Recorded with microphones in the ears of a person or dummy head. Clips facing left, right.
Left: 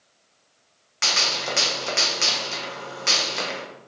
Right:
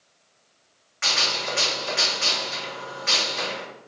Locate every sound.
1.0 s a gunshot: 50° left (ahead or behind), 1.1 m